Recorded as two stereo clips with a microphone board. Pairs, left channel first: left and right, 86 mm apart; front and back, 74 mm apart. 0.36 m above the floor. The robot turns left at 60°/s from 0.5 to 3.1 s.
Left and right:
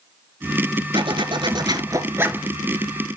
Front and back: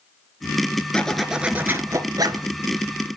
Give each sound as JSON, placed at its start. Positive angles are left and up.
{"t": 0.9, "sound": "a zipper", "azimuth_deg": -75, "distance_m": 1.0}